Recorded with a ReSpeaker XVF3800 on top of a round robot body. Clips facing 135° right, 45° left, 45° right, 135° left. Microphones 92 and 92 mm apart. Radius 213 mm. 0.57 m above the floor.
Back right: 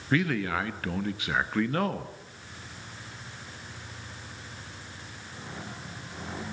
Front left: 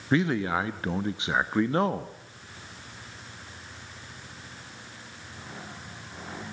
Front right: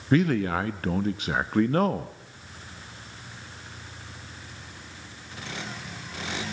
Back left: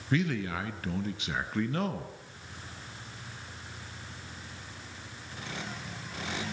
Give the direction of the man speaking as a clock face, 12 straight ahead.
1 o'clock.